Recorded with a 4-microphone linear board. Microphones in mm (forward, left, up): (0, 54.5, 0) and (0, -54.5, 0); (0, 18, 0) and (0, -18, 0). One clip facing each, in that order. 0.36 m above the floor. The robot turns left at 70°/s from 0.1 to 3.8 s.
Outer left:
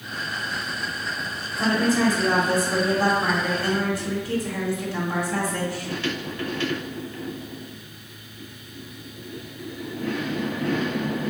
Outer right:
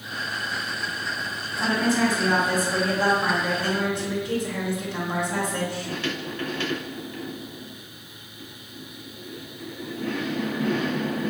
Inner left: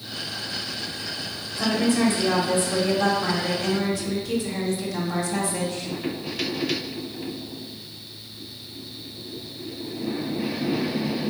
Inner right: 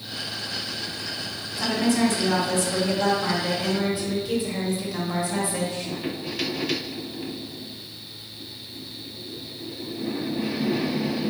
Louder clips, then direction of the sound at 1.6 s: Outer left 1 dB, inner left 1 dB; 120° left.